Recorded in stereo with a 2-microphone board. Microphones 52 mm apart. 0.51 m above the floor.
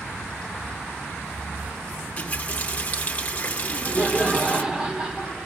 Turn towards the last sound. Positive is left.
turn(degrees=-20)  # may be behind; listen again after turning